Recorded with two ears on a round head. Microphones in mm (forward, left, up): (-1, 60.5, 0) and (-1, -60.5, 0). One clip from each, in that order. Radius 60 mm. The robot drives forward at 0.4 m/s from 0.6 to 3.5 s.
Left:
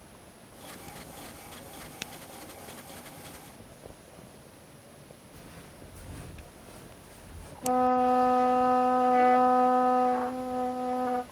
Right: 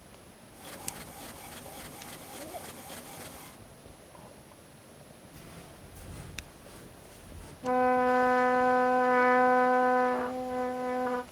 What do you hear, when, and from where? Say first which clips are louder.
5.3 s footsteps: even; 20° right (ahead or behind), 3 m; by 7.5 s centre (ahead or behind), 3.5 m
7.6 s a trumpet: left 1 dB; 20° right (ahead or behind), 1.5 m